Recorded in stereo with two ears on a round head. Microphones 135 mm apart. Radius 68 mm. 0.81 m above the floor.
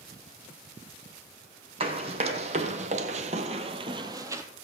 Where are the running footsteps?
40° right (ahead or behind), 2 m; by 4.4 s 20° right (ahead or behind), 1.3 m.